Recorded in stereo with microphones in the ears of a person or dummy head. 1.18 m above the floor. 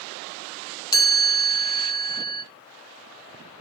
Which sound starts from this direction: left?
A chime, at 0.9 s.